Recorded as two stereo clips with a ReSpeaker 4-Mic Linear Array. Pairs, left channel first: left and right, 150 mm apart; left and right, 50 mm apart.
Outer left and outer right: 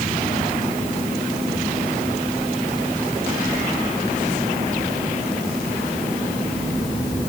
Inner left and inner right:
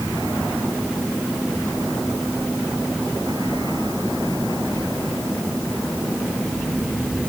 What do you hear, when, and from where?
Only background noise.